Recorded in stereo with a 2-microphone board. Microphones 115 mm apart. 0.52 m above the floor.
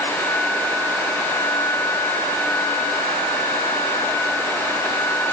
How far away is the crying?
I don't hear crying.